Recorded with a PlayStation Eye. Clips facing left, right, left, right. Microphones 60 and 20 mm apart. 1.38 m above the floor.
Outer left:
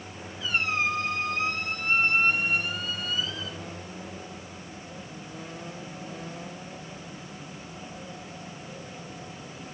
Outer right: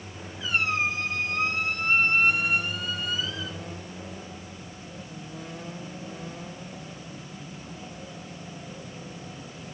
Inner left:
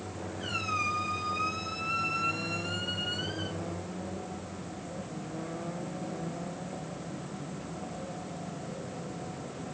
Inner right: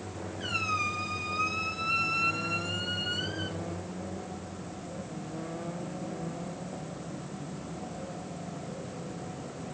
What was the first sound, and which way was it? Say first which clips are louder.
A squeak: outer right 1 dB, inner right 1 dB; 20° right (ahead or behind).